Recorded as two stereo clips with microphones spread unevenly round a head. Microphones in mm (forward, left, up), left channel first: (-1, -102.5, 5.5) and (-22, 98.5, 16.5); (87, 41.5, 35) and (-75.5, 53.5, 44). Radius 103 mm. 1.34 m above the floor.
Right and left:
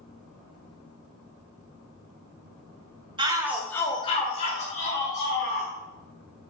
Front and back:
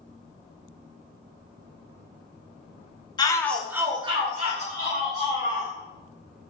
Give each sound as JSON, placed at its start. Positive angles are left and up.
{"t": 3.2, "sound": "a shout", "azimuth_deg": 40, "distance_m": 0.6}